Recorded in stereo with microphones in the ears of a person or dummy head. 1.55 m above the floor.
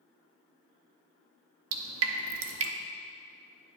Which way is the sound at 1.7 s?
65° right (ahead or behind).